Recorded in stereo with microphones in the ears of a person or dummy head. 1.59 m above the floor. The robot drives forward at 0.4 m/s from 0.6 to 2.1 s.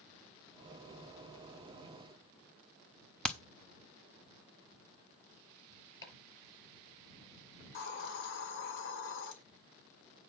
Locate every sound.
3.2 s hammering: 5° left (ahead or behind), 0.9 m
6.0 s chopping: 20° left (ahead or behind), 6.5 m
7.6 s a hiss: 60° left (ahead or behind), 2 m